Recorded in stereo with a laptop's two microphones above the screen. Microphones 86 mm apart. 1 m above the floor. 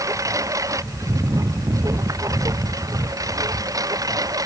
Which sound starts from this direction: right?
A lawn mower, at 0.0 s.